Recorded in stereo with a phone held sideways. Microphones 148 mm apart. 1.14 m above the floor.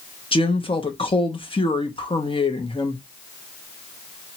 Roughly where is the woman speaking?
Left.